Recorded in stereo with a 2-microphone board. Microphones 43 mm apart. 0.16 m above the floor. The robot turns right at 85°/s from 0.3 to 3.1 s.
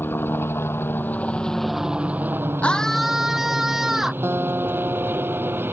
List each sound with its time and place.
0.0 s a helicopter: 60° left (ahead or behind); by 5.7 s 60° right (ahead or behind)
2.6 s a scream: 150° left; by 4.1 s 170° right
4.2 s a guitar: 70° right (ahead or behind)